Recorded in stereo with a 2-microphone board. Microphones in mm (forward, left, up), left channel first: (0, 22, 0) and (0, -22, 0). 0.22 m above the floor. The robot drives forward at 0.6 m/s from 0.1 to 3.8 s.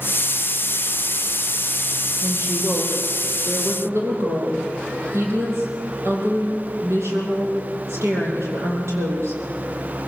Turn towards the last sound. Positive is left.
turn(degrees=-80)